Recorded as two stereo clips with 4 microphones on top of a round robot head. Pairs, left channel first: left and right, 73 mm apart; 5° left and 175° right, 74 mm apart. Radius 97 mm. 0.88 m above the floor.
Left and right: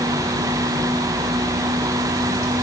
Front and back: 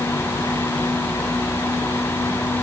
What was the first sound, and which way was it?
Only background noise.